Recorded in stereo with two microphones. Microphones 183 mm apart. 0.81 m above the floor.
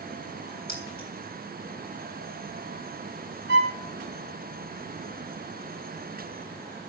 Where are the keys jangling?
60° left (ahead or behind), 6.5 m.